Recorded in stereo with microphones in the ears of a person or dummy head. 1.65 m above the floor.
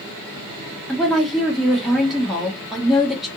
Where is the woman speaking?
Centre (ahead or behind), 1.4 m.